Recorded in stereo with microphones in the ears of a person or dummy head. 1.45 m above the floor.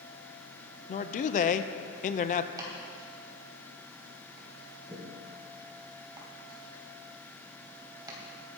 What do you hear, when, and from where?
0.9 s a man speaking: 35° left (ahead or behind), 0.8 m
2.6 s chopping: 30° right (ahead or behind), 3 m